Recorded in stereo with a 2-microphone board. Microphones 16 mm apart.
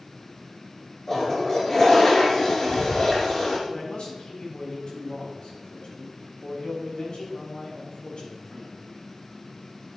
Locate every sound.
1.1 s a toilet flushing: 30° left (ahead or behind), 3.5 m
3.7 s a man speaking: 70° left (ahead or behind), 5 m